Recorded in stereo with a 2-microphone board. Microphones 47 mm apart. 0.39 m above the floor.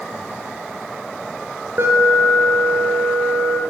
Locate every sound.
1.8 s an alarm: 60° right (ahead or behind), 5 m